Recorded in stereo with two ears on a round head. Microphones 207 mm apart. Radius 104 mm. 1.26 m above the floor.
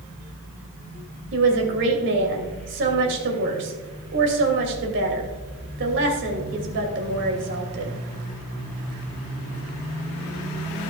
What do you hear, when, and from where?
1.3 s a woman speaking: 55° right (ahead or behind), 2.5 m